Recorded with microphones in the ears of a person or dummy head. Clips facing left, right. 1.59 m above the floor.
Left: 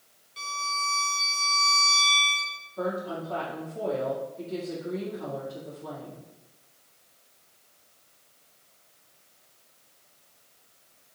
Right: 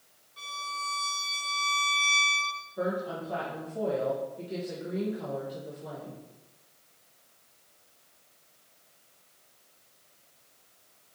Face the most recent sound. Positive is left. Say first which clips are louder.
# left 1 dB
turn(degrees=-20)  # may be behind; listen again after turning